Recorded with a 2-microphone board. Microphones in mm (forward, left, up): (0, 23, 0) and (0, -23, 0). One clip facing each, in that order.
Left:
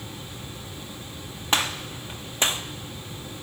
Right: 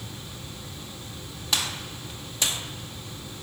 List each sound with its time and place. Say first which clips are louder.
1.5 s a gunshot: left 4 dB; 35° left (ahead or behind), 0.6 m